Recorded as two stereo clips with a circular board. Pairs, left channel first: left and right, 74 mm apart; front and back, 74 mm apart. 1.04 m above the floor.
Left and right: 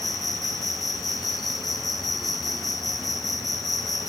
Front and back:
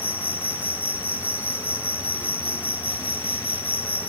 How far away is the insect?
About 1.0 m.